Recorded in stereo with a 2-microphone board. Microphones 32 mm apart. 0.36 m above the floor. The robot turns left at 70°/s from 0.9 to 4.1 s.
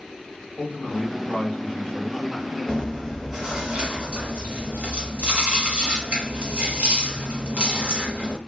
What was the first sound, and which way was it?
A man speaking, 110° left.